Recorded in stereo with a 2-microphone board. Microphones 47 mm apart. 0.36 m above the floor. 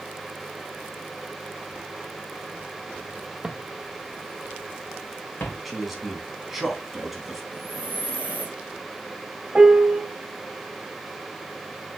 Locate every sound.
3.4 s footsteps: 15° right (ahead or behind), 0.7 m; by 5.5 s 50° left (ahead or behind), 2 m
5.7 s a man speaking: 5° right (ahead or behind), 3 m
7.5 s breathing: 50° left (ahead or behind), 2.5 m
9.6 s a piano: 25° right (ahead or behind), 1.3 m